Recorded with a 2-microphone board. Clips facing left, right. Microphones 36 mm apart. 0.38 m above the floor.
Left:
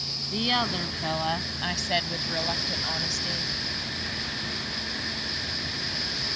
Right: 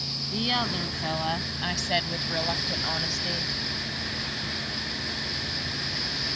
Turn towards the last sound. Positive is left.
turn(degrees=-10)  # may be behind; listen again after turning